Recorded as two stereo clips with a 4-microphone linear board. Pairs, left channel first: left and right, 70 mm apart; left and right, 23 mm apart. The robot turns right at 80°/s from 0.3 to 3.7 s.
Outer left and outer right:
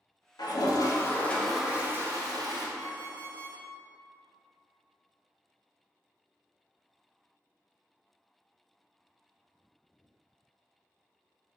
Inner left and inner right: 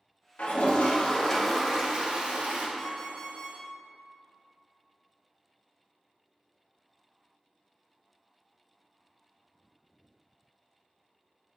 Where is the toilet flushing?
90° left, 0.6 m; by 2.7 s 90° right, 0.6 m.